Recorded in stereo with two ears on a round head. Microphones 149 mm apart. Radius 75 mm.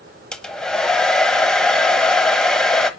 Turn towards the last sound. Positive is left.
turn(degrees=5)  # may be behind; listen again after turning